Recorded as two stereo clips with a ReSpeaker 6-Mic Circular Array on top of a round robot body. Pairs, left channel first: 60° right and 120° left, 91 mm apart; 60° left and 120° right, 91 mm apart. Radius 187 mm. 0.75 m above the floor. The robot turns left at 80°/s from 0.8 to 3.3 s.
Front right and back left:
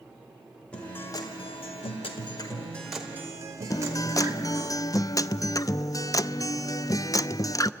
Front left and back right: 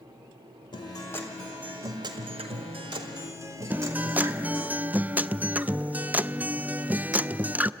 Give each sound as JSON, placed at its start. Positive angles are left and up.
{"t": 0.7, "sound": "a guitar", "azimuth_deg": 20, "distance_m": 1.9}
{"t": 3.7, "sound": "a guitar", "azimuth_deg": -60, "distance_m": 0.6}